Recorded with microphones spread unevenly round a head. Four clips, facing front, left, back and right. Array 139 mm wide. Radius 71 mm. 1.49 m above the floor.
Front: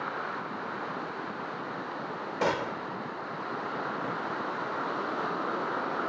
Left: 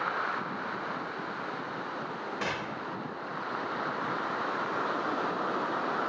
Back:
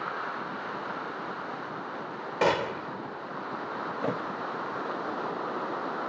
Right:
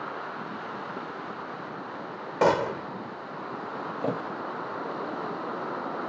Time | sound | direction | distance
2.4 | a gunshot | 95° right | ?
4.0 | a thud | 110° right | ?